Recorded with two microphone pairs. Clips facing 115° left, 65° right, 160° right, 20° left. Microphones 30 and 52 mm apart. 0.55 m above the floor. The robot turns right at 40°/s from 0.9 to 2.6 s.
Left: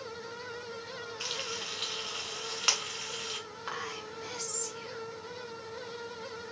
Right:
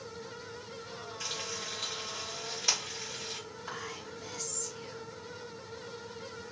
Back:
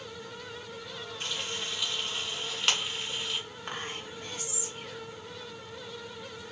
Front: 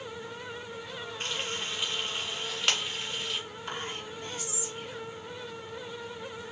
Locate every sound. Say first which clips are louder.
1.2 s frying: left 2 dB, front 1 dB; 55° left, 2 m; by 3.4 s 110° left, 2 m
3.7 s whispering: left 3 dB, front 1 dB; 155° left, 1.9 m